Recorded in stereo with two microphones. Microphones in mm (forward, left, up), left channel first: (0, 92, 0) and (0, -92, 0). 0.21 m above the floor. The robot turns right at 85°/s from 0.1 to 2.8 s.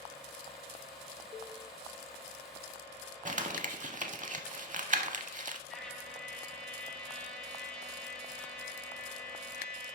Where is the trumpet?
5° left (ahead or behind), 1.1 m.